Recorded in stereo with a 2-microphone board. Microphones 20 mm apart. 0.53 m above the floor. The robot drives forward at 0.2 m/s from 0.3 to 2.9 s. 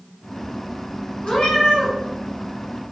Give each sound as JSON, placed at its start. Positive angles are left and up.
{"t": 1.2, "sound": "a cat meowing", "side_deg": 70, "distance_m": 1.6}